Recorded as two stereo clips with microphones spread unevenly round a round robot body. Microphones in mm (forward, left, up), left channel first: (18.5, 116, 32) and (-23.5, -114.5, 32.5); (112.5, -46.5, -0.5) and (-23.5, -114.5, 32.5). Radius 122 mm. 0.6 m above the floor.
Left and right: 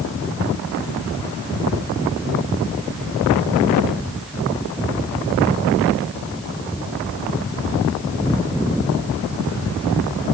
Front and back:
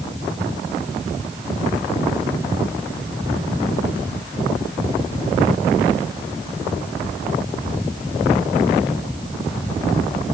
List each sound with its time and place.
Only background noise.